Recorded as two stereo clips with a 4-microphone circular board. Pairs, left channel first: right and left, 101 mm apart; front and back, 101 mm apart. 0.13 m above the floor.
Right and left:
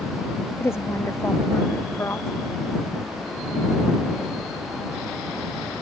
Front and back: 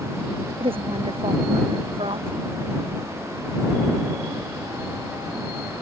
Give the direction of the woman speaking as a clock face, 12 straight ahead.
5 o'clock.